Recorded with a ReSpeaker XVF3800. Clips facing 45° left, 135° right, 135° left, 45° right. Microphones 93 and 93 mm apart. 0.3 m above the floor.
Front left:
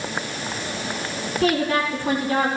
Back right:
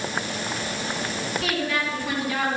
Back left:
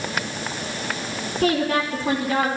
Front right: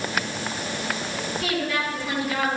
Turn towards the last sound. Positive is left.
turn(degrees=90)